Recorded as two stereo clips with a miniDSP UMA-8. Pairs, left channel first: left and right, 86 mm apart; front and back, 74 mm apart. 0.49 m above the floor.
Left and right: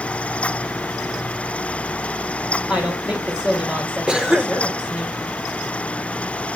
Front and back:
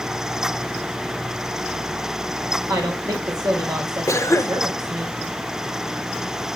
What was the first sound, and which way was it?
A woman speaking, 170° right.